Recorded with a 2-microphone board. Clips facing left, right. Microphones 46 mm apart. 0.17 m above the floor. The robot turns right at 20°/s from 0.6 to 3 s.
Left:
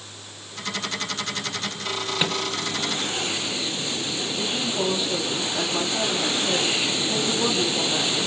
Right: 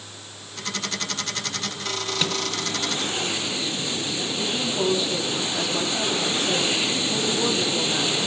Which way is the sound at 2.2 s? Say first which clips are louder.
Left 1 dB; 15° left (ahead or behind).